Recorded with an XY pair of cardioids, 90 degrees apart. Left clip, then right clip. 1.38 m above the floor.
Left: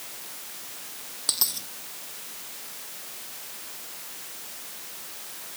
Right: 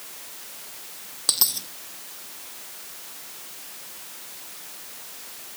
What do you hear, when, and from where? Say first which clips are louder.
1.3 s a dropped coin: right 4 dB; 35° right